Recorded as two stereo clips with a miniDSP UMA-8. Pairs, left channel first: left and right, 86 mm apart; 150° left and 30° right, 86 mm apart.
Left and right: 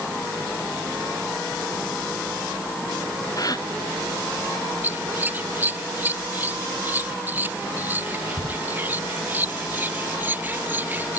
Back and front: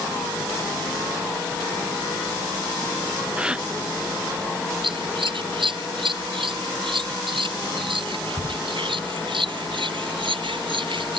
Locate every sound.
3.4 s a gasp: 50° left
4.8 s scissors: 20° right